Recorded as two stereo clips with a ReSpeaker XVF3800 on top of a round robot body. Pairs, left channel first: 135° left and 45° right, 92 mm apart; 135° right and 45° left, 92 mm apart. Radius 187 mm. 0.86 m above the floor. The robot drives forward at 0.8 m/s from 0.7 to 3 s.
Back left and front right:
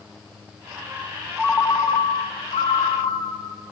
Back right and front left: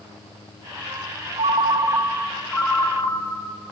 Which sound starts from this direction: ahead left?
A ringtone, at 1.4 s.